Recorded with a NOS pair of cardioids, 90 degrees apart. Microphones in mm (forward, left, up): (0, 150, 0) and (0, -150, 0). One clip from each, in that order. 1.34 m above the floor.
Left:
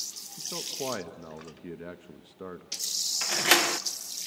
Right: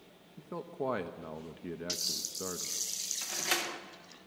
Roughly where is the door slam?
Ahead left.